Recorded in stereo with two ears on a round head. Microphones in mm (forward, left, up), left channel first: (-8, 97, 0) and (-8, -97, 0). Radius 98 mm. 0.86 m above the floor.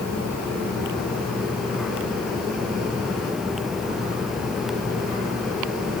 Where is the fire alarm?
I don't hear a fire alarm.